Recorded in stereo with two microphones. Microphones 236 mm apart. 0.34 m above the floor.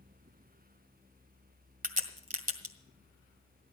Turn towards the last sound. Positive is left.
turn(degrees=-35)  # may be behind; listen again after turning